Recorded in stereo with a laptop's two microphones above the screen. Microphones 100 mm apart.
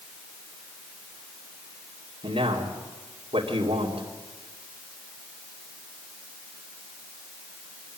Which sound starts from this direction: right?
A man speaking, at 2.2 s.